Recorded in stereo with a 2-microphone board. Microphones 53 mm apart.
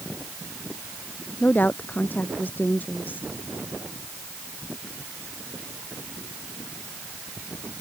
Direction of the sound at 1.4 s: 35° left (ahead or behind).